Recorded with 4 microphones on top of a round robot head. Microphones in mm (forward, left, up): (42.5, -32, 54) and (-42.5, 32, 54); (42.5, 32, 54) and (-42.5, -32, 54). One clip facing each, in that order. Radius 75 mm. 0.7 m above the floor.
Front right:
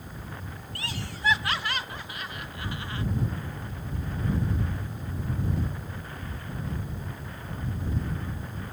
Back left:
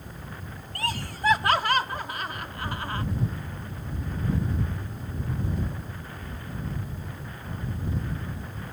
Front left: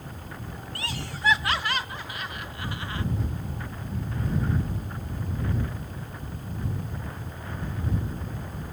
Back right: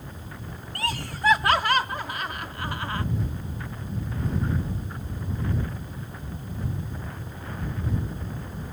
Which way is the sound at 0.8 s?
Straight behind.